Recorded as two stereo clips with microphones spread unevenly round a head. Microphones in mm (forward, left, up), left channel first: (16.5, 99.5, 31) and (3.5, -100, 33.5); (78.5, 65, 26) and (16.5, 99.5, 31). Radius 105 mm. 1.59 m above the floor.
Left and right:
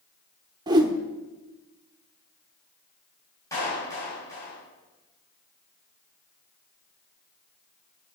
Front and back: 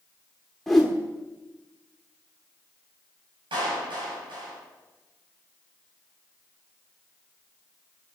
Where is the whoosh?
120° right, 1.2 m.